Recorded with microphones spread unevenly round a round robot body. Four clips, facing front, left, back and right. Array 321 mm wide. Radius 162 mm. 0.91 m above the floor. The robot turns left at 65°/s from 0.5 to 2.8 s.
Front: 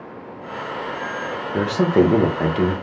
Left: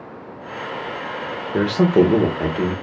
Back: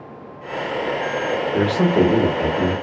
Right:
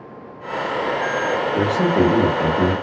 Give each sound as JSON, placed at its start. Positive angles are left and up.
{"t": 1.5, "sound": "a man speaking", "azimuth_deg": 75, "distance_m": 0.8}